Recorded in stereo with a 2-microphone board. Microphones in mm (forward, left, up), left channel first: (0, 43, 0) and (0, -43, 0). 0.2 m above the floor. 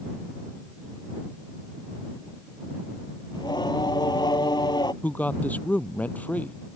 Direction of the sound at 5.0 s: 20° left (ahead or behind).